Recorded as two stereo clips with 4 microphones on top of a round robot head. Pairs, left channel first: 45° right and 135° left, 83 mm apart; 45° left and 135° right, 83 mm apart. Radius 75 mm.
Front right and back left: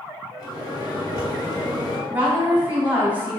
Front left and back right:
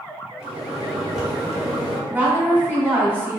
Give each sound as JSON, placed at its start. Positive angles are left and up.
{"t": 0.4, "sound": "a microwave", "azimuth_deg": -45, "distance_m": 1.4}
{"t": 2.1, "sound": "a woman speaking", "azimuth_deg": 180, "distance_m": 1.2}